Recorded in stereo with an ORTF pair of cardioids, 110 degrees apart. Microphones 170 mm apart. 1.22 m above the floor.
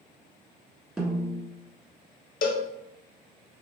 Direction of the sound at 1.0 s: Straight ahead.